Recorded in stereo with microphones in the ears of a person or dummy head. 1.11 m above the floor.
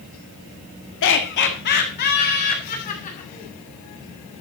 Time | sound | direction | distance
1.0 | laughter | 60° left (ahead or behind) | 1.6 m